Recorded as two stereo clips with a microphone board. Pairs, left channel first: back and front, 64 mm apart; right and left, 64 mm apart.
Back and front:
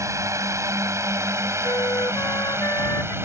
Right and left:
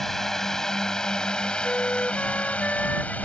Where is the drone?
5° right; by 3.2 s 30° right.